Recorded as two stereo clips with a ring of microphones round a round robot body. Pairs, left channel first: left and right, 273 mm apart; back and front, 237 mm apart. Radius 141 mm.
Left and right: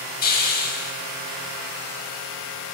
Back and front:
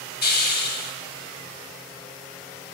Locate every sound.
0.2 s a hiss: 140° left, 2 m